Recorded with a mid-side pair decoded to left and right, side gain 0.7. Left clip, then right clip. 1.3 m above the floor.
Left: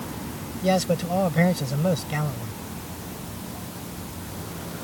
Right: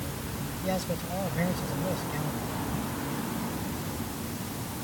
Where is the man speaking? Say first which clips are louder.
Left 10 dB; 40° left.